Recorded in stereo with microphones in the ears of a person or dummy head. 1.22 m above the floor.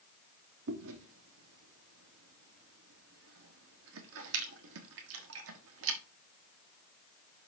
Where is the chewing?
70° right (ahead or behind), 1.3 m.